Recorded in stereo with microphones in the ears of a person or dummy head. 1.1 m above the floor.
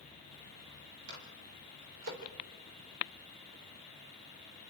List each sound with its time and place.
1.1 s a microwave: 80° right, 3.5 m